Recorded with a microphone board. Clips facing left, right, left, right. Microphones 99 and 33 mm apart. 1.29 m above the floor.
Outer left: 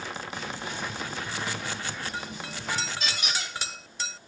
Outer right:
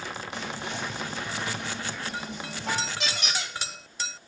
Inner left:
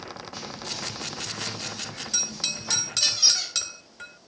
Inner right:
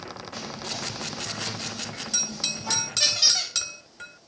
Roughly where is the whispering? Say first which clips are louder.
Outer right 1 dB, inner right 2 dB; right.